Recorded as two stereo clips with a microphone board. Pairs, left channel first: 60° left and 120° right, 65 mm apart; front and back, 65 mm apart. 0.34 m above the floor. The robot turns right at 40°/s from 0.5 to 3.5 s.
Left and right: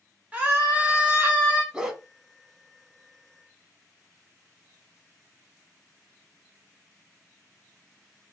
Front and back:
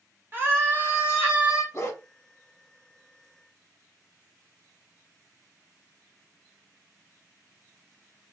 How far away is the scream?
About 1.2 m.